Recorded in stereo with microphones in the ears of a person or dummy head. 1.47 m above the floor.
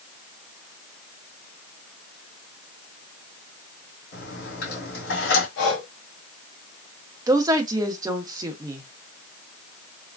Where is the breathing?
75° left (ahead or behind), 0.8 m.